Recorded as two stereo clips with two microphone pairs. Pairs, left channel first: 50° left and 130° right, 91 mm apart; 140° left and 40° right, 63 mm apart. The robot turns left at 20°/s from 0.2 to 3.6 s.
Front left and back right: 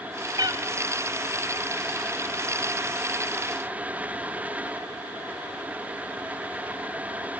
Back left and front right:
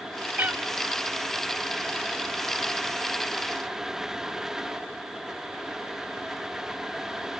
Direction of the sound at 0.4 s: 95° right.